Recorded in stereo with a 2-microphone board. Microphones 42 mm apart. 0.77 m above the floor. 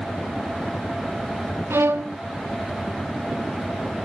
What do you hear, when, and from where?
1.7 s a violin: 85° right, 0.6 m